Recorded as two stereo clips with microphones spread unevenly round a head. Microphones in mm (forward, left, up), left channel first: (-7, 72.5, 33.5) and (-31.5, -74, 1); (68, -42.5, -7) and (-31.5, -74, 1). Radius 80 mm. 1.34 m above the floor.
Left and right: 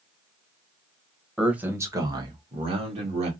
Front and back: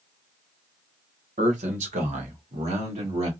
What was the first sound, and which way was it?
A man speaking, 175° left.